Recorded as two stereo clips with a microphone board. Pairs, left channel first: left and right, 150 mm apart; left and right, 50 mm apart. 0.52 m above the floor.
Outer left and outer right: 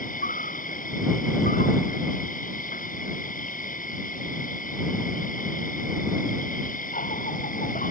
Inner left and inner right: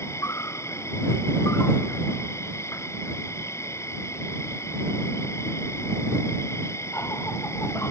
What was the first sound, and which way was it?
An insect, 65° left (ahead or behind).